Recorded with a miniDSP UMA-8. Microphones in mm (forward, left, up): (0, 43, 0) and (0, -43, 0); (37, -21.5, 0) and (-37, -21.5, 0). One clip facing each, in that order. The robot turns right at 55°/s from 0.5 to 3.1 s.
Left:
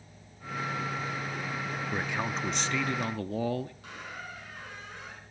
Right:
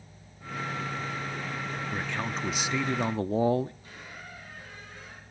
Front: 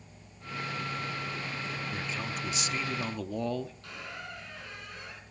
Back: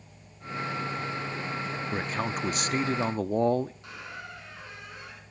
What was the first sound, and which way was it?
A man speaking, 155° left.